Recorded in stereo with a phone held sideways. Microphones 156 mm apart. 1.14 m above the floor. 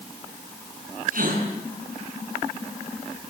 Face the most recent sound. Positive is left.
turn(degrees=-65)  # may be behind; listen again after turning